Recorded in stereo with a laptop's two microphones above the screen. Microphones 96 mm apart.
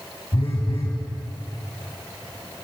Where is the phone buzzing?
70° left (ahead or behind), 3.5 m.